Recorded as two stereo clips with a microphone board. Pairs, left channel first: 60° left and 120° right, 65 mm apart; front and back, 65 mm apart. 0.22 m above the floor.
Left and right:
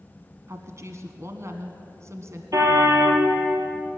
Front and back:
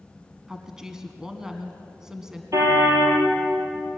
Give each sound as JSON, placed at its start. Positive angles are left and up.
{"t": 0.5, "sound": "a woman speaking", "azimuth_deg": -100, "distance_m": 1.6}
{"t": 2.5, "sound": "a car horn", "azimuth_deg": -150, "distance_m": 3.5}